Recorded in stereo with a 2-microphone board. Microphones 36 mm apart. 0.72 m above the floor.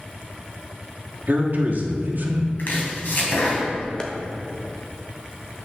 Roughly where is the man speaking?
Right.